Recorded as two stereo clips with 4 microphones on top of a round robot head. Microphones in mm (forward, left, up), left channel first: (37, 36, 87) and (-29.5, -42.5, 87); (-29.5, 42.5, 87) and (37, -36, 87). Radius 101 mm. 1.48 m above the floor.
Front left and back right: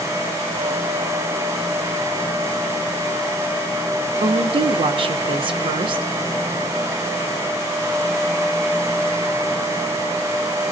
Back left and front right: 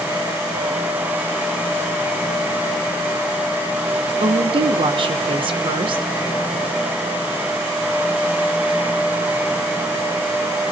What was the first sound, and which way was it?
A woman speaking, 90° right.